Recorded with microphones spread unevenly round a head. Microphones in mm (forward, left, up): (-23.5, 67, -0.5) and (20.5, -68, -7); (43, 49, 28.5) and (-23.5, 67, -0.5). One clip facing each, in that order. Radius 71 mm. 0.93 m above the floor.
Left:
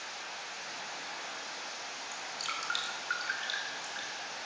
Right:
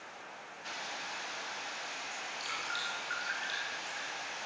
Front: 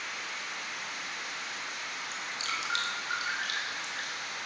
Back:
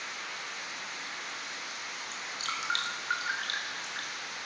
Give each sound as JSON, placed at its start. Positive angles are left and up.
{"t": 2.1, "sound": "dripping", "azimuth_deg": 135, "distance_m": 4.0}